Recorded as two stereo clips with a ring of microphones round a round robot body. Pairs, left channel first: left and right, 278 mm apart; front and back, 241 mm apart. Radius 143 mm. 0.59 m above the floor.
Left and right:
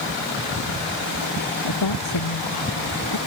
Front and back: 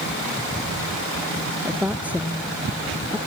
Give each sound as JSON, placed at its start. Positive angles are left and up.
{"t": 1.6, "sound": "a woman speaking", "azimuth_deg": 95}